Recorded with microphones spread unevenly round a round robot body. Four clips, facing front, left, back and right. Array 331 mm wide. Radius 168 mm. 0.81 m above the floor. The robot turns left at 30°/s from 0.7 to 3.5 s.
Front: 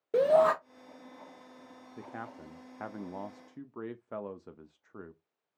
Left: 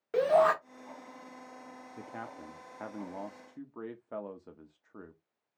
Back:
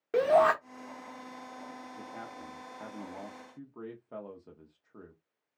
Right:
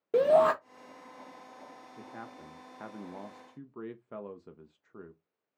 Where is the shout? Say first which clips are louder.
Right 2 dB, even; 85° right, 0.7 m.